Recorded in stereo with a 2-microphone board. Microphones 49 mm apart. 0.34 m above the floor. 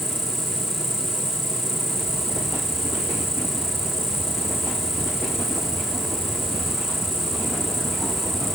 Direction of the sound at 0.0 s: 60° left (ahead or behind).